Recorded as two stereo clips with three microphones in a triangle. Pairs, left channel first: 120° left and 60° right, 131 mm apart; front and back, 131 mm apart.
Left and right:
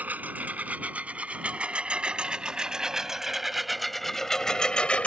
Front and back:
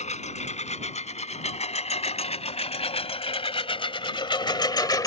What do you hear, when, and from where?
0.0 s a lawn mower: 15° left; by 5.1 s 45° left